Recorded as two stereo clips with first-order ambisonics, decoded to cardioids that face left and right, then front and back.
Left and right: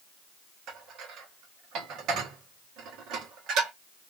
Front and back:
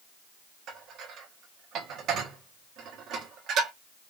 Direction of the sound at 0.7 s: 130° right.